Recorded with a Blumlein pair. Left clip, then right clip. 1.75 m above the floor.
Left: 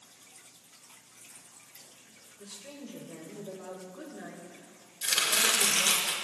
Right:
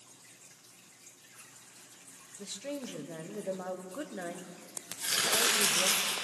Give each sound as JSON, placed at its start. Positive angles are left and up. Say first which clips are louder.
{"t": 2.4, "sound": "a woman speaking", "louder": "right 7 dB", "azimuth_deg": -65, "distance_m": 1.0}
{"t": 5.0, "sound": "chopping", "louder": "left 2 dB", "azimuth_deg": 10, "distance_m": 2.5}